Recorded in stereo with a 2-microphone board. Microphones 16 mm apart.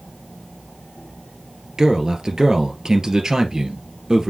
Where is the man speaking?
45° right (ahead or behind), 1.9 m.